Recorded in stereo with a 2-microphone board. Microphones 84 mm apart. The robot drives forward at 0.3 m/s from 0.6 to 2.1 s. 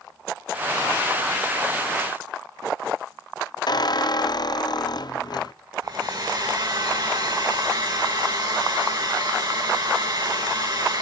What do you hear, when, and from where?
3.7 s a squeak: 55° left (ahead or behind), 0.6 m
5.8 s a hair dryer: 60° right (ahead or behind), 6 m